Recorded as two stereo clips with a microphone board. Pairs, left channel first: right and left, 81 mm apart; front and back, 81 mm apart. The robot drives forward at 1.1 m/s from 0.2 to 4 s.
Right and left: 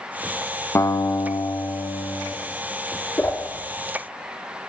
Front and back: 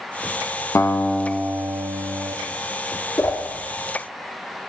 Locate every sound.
0.8 s a guitar: 45° right, 0.9 m; by 2.4 s 155° right, 1.4 m
3.2 s a whoosh: 35° right, 1.7 m; by 3.4 s 45° right, 1.6 m